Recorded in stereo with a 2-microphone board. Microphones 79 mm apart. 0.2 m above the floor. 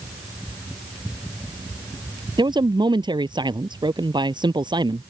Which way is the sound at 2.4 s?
70° right (ahead or behind).